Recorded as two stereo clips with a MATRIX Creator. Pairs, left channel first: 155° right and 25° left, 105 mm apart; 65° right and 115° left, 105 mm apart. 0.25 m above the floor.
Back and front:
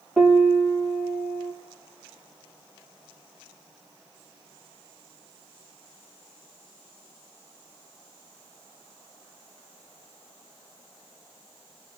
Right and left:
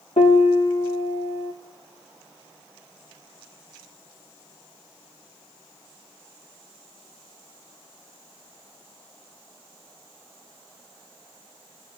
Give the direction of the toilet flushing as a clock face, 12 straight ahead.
I don't hear a toilet flushing.